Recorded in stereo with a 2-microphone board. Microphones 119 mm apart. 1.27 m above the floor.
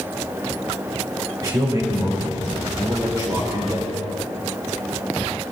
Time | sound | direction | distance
1.4 | a man speaking | 30° right (ahead or behind) | 3.5 m